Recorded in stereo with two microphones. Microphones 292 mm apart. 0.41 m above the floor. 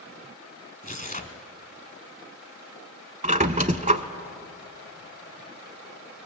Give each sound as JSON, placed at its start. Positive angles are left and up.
{"t": 0.8, "sound": "tearing paper", "side_deg": 25, "distance_m": 1.1}
{"t": 3.2, "sound": "a squeak", "side_deg": -25, "distance_m": 0.7}